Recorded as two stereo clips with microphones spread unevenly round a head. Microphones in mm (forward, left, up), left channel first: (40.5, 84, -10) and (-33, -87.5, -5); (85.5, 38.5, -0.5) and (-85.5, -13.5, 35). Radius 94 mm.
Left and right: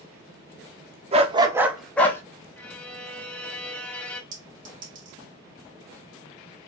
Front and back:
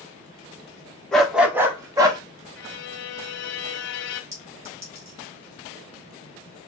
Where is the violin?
15° right, 0.6 m.